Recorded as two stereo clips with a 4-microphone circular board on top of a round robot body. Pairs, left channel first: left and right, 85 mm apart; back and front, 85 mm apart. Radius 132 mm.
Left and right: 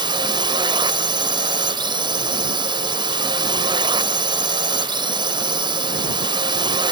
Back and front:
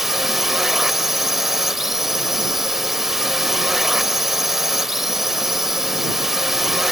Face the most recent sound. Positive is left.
turn(degrees=-85)